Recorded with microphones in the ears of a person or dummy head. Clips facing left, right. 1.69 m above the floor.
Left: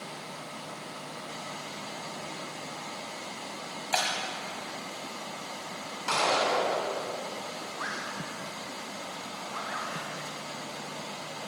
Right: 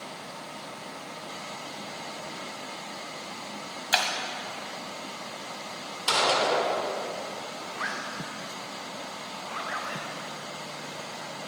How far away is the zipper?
About 2.5 m.